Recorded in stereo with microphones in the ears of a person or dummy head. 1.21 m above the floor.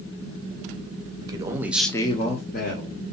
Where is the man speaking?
20° right (ahead or behind), 0.8 m; by 3.0 s 40° left (ahead or behind), 0.9 m.